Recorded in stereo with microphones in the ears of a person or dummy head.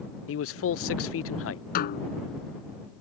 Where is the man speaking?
65° left (ahead or behind).